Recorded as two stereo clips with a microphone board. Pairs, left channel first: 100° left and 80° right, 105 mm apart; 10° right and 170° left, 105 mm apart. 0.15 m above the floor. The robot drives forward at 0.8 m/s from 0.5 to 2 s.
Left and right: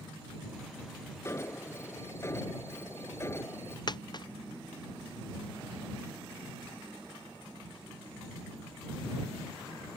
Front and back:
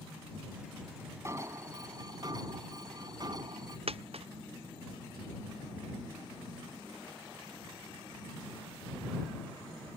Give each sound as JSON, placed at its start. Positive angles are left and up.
{"t": 1.2, "sound": "an alarm", "azimuth_deg": 135}
{"t": 3.9, "sound": "a dropped coin", "azimuth_deg": 145}